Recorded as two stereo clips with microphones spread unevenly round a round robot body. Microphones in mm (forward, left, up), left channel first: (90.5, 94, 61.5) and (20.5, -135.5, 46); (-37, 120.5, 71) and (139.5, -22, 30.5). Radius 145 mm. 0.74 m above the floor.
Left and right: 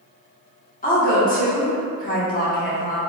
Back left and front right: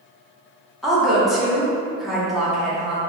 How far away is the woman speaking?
About 0.9 m.